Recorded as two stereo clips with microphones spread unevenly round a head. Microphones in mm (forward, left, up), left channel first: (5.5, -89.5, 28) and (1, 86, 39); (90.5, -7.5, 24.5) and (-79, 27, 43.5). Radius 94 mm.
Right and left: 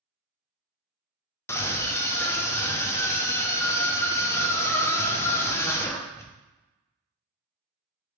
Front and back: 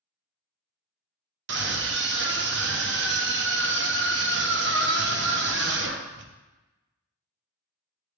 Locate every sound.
1.5 s a scream: 165° right, 0.9 m